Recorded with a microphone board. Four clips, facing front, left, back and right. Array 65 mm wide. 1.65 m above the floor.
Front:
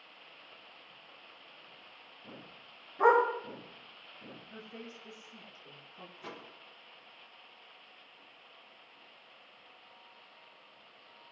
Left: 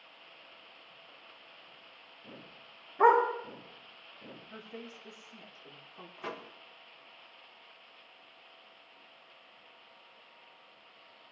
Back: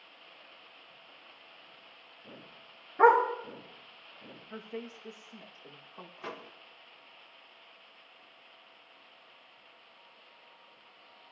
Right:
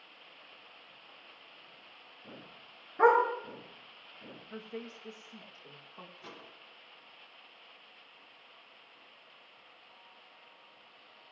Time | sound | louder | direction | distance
3.0 | a dog barking | left 1 dB, back 3 dB | 150° right | 6.5 m
4.5 | a woman speaking | right 4 dB, back 8 dB | 160° right | 3 m
6.2 | a microwave | left 8 dB, back 5 dB | 125° left | 1.2 m